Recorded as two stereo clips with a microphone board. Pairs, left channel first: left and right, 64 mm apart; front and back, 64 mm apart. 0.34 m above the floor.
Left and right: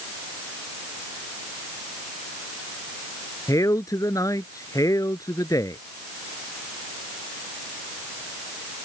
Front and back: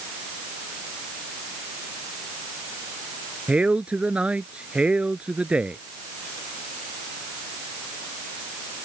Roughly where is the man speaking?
Left.